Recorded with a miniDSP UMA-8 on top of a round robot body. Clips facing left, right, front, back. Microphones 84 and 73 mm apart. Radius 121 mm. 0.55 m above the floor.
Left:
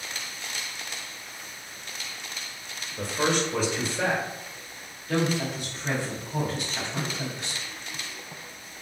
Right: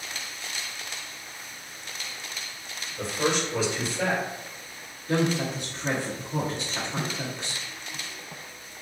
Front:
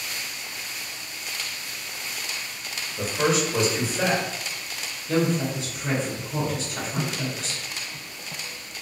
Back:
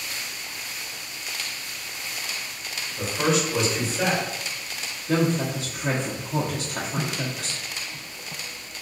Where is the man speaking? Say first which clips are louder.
Left 1 dB, even; 85° left, 1.7 m.